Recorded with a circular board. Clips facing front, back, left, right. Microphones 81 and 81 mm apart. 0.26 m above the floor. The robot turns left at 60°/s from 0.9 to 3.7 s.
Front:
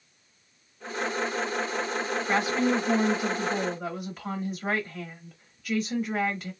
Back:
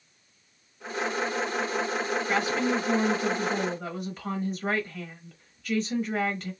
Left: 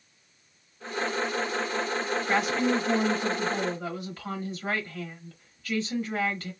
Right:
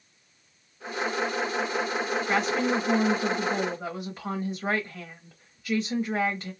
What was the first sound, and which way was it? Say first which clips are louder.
A woman speaking: front 3 dB, left 1 dB; 15° left.